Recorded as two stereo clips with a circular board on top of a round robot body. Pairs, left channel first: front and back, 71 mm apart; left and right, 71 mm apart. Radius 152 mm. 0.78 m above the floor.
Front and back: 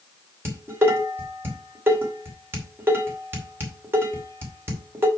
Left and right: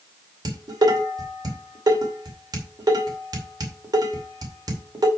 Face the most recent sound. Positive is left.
turn(degrees=-120)